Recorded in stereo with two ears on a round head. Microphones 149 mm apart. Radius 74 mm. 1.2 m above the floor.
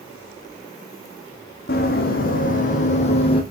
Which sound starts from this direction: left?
Running footsteps, at 1.7 s.